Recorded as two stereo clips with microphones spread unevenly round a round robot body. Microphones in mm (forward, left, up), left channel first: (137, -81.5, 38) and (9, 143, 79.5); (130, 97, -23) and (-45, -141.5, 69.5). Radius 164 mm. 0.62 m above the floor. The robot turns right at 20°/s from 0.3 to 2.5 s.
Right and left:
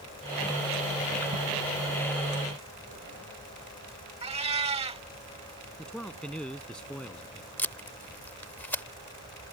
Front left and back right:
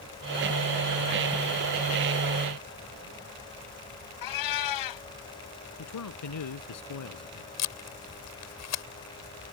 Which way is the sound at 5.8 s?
25° left.